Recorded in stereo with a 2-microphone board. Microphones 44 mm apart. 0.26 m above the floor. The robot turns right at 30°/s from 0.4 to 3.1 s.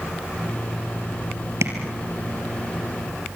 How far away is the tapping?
About 4 m.